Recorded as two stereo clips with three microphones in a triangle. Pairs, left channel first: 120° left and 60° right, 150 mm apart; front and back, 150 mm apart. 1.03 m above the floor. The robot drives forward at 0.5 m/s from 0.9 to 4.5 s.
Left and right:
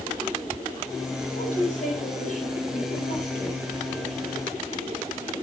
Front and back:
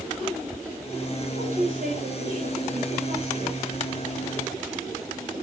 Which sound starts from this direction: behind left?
A woman speaking, at 1.3 s.